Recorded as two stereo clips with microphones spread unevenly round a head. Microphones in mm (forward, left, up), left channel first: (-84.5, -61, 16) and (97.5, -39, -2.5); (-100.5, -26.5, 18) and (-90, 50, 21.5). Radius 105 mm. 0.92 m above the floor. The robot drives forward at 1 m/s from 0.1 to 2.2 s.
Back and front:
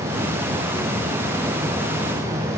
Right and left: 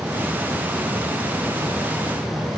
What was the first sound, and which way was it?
Only background noise.